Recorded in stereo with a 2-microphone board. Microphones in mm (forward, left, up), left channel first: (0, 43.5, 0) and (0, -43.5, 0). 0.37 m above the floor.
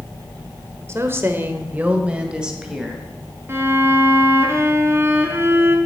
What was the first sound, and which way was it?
A woman speaking, 30° right (ahead or behind).